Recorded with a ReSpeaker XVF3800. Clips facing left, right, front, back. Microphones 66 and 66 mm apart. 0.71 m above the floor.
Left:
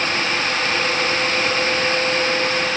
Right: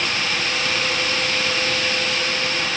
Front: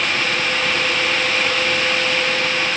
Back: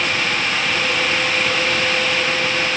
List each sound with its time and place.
Only background noise.